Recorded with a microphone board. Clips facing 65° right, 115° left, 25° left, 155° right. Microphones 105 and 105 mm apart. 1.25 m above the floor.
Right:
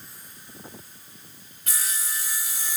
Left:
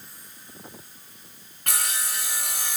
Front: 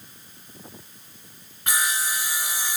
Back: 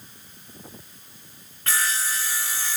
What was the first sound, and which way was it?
Sawing, 95° left.